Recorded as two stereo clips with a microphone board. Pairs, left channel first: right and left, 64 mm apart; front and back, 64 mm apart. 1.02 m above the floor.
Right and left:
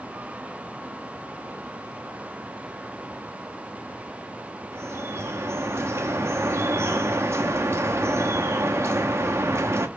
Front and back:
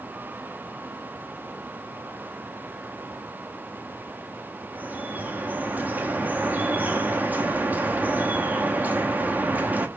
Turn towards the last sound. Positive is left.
turn(degrees=120)